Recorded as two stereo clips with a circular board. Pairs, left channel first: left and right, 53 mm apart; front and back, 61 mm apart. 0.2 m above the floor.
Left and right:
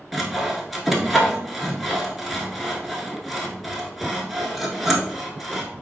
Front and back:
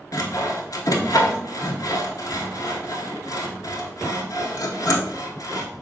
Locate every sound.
0.1 s sawing: straight ahead, 0.7 m